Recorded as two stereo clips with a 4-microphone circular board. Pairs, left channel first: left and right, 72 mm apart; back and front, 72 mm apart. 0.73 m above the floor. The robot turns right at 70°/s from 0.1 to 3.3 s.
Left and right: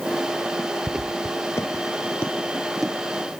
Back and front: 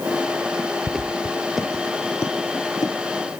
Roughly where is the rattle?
I don't hear a rattle.